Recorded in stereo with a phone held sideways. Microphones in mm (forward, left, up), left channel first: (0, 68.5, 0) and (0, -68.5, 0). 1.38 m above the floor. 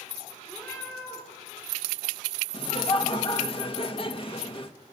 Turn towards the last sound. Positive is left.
turn(degrees=40)  # may be behind; listen again after turning